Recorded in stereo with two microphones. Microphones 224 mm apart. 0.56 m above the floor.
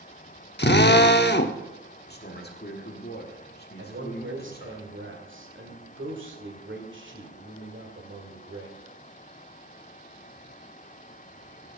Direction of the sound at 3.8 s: 60° right (ahead or behind).